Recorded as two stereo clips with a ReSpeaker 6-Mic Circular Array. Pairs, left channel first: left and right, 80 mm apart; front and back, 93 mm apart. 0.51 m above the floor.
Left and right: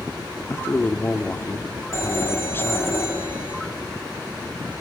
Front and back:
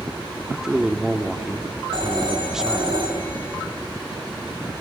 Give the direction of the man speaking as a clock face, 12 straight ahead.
9 o'clock.